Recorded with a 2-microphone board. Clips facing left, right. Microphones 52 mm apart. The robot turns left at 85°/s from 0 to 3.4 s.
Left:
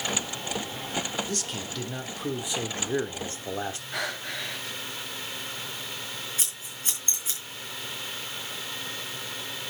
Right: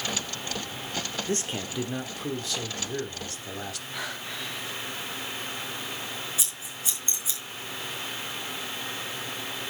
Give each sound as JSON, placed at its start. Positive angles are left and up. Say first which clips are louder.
{"t": 1.3, "sound": "a man speaking", "louder": "right 3 dB", "azimuth_deg": -110, "distance_m": 1.2}
{"t": 3.9, "sound": "breathing", "louder": "left 2 dB", "side_deg": 70, "distance_m": 6.0}
{"t": 6.4, "sound": "scissors", "louder": "right 1 dB", "side_deg": 45, "distance_m": 5.0}